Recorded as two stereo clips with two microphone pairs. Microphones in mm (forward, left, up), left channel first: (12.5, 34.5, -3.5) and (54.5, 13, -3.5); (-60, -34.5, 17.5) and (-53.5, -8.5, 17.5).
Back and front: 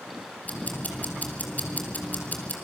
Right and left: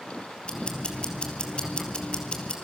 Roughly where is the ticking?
Behind right.